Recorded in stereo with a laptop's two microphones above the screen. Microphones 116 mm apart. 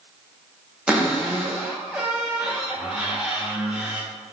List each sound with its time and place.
0.9 s a cupboard door: 10° right (ahead or behind), 0.5 m